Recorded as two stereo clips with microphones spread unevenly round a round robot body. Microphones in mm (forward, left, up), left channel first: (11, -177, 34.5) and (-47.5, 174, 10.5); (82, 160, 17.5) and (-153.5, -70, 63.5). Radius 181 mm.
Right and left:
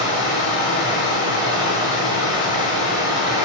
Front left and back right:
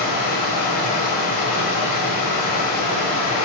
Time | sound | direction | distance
0.0 | running water | 20° left | 1.1 m